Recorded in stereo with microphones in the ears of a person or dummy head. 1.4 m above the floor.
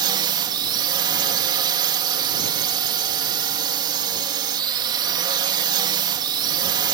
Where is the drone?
30° right (ahead or behind).